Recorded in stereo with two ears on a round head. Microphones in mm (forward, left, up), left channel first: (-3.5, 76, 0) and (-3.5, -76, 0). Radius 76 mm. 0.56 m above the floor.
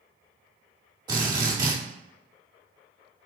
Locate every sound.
1.1 s a drill: 25° right (ahead or behind), 1.1 m